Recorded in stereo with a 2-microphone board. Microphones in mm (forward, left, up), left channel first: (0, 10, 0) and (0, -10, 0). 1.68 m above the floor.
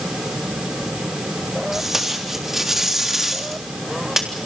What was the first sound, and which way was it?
Tape being pulled, 25° right (ahead or behind).